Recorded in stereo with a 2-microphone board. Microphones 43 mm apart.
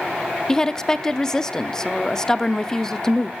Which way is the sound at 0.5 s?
15° left (ahead or behind).